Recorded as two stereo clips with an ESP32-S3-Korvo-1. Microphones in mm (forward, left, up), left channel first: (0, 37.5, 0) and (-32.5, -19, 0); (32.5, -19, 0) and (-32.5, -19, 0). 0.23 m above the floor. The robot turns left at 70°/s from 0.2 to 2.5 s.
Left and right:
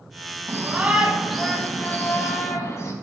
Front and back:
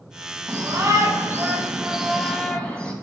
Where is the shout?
155° right, 1.9 m; by 2.9 s 65° left, 1.9 m.